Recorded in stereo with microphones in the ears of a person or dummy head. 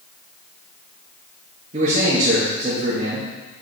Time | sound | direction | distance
1.7 | a man speaking | 40° right (ahead or behind) | 1.8 m